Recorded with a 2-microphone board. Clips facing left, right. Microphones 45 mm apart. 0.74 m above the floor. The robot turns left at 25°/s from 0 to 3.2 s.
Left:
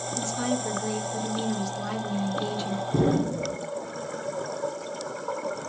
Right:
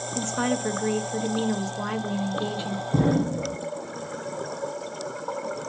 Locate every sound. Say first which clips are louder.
0.1 s a woman speaking: right 3 dB; 90° right, 0.5 m; by 2.8 s 155° right, 0.5 m
2.9 s an explosion: right 1 dB; 60° right (ahead or behind), 1.1 m; by 3.6 s 65° right (ahead or behind), 1.1 m